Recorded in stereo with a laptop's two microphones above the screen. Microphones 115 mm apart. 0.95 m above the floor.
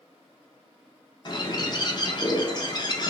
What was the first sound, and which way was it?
A bird, 40° left (ahead or behind).